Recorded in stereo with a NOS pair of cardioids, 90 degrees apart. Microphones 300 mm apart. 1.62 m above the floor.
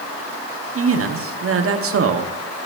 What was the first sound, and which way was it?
A man speaking, 50° right.